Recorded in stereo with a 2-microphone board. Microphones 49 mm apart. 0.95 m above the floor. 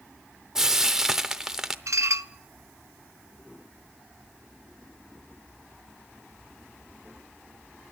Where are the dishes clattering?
75° right (ahead or behind), 0.6 m.